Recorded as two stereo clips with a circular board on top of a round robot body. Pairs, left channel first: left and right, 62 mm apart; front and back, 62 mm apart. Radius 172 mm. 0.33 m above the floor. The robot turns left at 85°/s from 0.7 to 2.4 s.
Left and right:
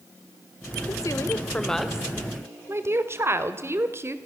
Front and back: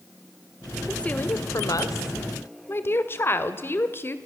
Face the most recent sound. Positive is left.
turn(degrees=-50)